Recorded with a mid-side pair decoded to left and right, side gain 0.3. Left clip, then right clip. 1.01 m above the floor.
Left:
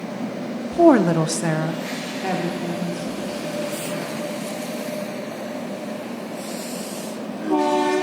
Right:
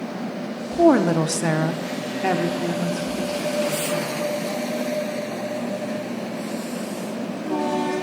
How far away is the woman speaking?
About 0.8 m.